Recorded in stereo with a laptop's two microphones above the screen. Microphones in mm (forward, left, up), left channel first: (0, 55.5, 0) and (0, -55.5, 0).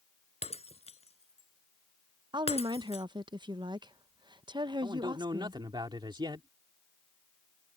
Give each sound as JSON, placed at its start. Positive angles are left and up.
{"t": 0.4, "sound": "breaking glass", "side_deg": 70}
{"t": 2.3, "sound": "a woman speaking", "side_deg": -40}
{"t": 4.8, "sound": "a man speaking", "side_deg": -45}